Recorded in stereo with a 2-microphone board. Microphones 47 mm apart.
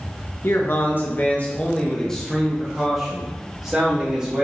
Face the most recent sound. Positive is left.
turn(degrees=-25)  # may be behind; listen again after turning